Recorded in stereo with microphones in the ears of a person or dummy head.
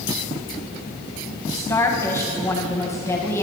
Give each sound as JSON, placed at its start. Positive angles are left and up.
{"t": 1.5, "sound": "a woman speaking", "side_deg": 15, "distance_m": 1.7}